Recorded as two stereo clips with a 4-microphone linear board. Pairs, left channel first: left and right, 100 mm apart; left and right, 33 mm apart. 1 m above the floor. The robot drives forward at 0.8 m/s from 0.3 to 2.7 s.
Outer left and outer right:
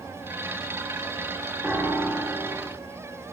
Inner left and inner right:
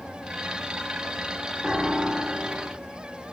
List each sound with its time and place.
1.6 s a piano: 20° right (ahead or behind), 3.5 m; by 2.7 s 25° right (ahead or behind), 2.5 m